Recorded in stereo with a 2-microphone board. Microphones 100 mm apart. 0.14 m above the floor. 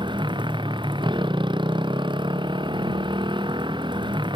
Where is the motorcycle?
60° right (ahead or behind).